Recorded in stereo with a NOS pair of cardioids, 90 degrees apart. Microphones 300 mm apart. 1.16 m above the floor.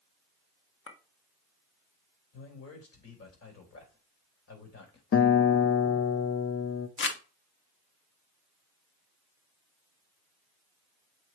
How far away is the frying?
No frying in this recording.